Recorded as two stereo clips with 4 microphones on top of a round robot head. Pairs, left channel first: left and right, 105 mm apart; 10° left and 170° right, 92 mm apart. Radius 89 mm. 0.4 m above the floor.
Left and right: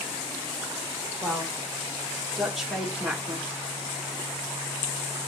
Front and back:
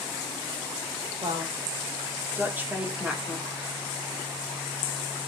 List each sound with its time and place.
1.2 s a woman speaking: 165° left, 1.9 m; by 3.5 s 45° right, 1.3 m